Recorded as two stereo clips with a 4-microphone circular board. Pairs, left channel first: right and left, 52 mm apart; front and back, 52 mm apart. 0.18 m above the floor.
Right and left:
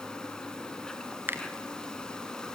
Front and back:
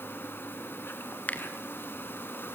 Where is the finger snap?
50° left, 1.7 m.